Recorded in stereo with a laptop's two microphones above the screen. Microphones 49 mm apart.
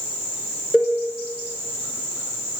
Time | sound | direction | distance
0.7 | a cowbell | 5° right (ahead or behind) | 2.5 m